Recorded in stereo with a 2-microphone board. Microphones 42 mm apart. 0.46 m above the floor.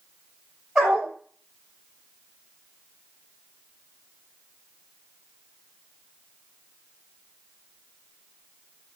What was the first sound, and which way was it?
A dog barking, 15° right (ahead or behind).